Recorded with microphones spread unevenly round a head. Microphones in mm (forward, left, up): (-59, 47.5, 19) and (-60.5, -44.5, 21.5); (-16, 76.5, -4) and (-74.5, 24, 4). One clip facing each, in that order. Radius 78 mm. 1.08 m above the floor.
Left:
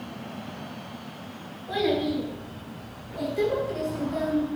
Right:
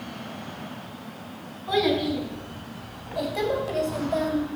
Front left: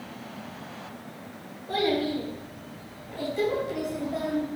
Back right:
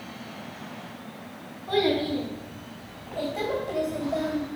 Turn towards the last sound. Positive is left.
turn(degrees=-70)